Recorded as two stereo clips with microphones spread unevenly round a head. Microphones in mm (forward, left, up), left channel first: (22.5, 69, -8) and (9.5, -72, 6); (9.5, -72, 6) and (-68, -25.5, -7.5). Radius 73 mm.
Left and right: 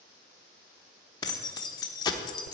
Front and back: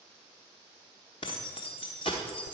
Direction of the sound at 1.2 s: 20° left.